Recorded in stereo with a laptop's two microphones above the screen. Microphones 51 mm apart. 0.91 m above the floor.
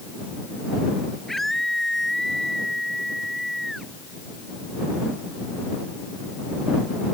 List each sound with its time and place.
1.3 s a scream: 5° left (ahead or behind)